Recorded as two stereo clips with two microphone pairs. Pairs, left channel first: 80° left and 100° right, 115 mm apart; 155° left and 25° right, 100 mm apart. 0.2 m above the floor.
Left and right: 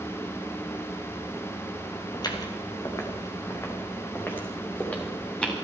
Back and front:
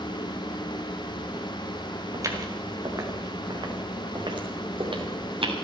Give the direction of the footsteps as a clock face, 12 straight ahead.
11 o'clock.